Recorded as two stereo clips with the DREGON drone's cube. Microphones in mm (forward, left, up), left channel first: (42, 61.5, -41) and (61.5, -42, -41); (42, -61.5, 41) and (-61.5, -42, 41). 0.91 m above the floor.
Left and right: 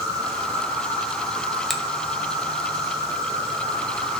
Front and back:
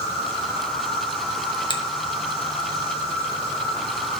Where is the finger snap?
10° left, 0.7 m.